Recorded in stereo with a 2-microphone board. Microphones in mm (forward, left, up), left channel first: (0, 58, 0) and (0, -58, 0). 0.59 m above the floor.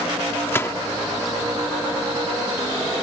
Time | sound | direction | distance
0.5 | a gunshot | 20° left (ahead or behind) | ?